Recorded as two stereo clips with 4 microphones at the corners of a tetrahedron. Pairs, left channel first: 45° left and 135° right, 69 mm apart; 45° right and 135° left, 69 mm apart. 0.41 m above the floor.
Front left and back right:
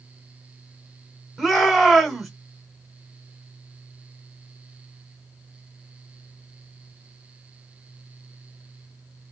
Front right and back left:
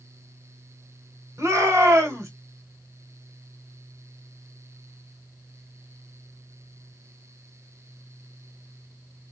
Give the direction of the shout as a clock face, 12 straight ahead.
7 o'clock.